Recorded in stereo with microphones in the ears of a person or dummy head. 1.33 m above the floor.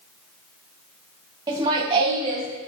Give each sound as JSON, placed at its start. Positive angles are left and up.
{"t": 1.5, "sound": "laughter", "side_deg": -25, "distance_m": 1.2}